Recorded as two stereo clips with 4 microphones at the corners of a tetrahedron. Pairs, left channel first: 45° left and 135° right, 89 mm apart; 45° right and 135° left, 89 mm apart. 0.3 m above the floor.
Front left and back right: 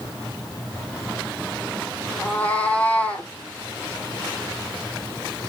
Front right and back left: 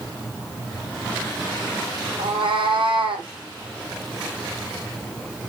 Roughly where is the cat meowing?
Behind left.